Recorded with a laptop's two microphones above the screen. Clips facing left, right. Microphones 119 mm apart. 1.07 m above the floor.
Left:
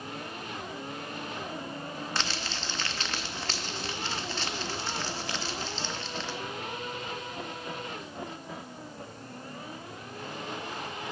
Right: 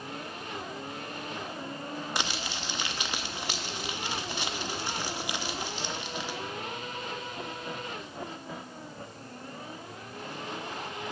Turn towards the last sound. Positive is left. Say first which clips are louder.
# right 1 dB
turn(degrees=-15)  # may be behind; listen again after turning